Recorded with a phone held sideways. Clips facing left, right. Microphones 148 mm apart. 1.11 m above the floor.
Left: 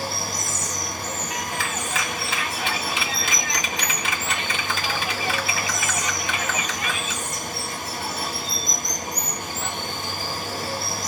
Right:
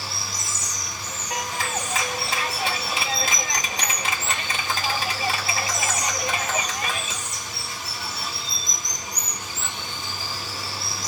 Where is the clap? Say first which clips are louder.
Right 5 dB; 40° right (ahead or behind), 1.8 m.